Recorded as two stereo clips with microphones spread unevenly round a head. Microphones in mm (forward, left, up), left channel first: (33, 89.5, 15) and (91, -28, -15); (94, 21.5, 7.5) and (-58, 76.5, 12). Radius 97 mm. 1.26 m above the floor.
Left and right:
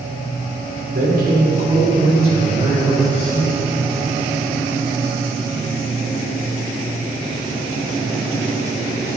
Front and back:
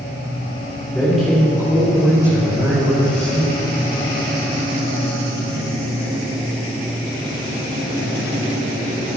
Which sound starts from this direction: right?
A man speaking, at 0.9 s.